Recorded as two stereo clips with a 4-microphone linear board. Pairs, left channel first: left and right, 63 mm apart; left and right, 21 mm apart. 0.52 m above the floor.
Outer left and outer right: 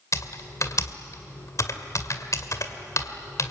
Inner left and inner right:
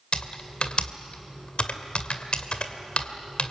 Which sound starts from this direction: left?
Typing on a keyboard, at 0.1 s.